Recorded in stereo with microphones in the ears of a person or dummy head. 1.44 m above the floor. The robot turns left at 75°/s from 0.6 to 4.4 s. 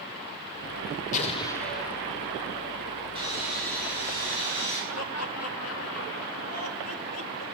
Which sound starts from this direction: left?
Laughter, at 4.9 s.